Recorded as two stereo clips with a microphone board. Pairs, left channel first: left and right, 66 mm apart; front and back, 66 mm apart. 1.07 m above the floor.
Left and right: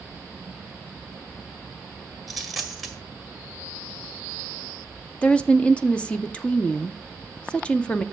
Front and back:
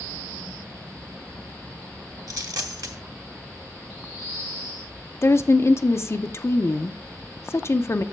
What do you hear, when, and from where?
2.3 s a dropped coin: straight behind, 1.6 m
5.2 s a woman speaking: 20° left, 0.5 m